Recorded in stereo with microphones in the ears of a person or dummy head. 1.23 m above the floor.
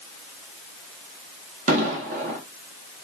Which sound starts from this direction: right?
An explosion, at 1.7 s.